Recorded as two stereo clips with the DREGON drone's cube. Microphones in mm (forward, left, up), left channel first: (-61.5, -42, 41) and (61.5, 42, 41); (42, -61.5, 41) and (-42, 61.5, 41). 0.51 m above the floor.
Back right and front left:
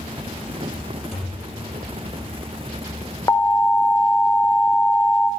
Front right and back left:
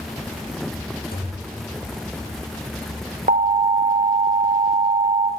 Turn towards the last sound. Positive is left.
turn(degrees=150)